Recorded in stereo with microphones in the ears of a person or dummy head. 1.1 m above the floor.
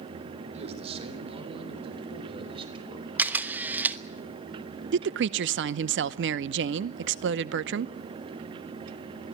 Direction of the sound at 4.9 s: 55° right (ahead or behind).